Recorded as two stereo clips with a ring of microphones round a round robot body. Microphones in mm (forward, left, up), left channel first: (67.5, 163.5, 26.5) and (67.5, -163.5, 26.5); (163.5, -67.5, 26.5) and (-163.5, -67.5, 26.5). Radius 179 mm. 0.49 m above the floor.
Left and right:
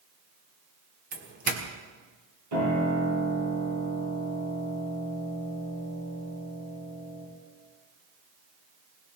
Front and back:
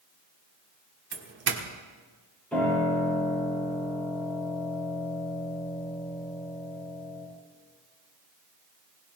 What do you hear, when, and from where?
1.1 s a doorbell: 145° right, 1.6 m
2.5 s a piano: 85° right, 9 m